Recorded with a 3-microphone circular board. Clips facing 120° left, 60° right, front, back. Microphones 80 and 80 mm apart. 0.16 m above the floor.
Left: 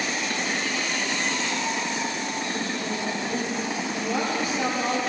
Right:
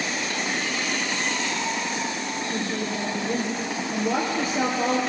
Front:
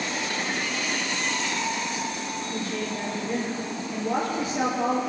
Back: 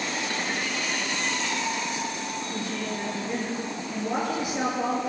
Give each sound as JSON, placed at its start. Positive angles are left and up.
{"t": 2.5, "sound": "a woman speaking", "azimuth_deg": -105, "distance_m": 3.0}